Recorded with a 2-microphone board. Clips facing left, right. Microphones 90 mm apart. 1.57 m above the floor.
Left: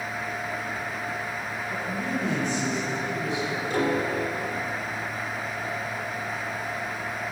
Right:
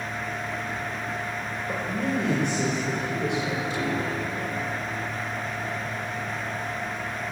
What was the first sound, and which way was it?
A man speaking, 80° right.